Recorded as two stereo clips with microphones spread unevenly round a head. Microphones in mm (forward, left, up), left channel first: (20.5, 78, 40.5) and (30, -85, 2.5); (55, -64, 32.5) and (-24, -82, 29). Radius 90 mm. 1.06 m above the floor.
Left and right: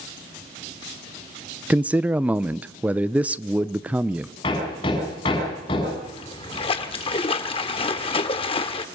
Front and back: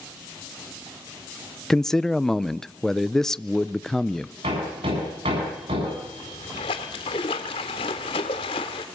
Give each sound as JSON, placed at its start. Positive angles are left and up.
{"t": 1.7, "sound": "a man speaking", "azimuth_deg": -65, "distance_m": 0.6}
{"t": 4.4, "sound": "hammering", "azimuth_deg": 155, "distance_m": 7.5}
{"t": 6.0, "sound": "a splash", "azimuth_deg": 40, "distance_m": 1.5}